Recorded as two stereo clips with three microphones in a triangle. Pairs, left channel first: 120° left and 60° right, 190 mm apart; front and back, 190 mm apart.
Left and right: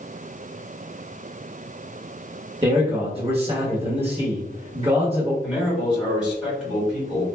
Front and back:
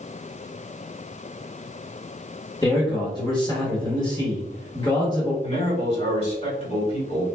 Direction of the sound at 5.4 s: 25° left.